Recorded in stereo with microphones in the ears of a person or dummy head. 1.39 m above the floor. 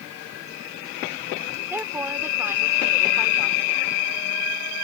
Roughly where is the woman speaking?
Centre.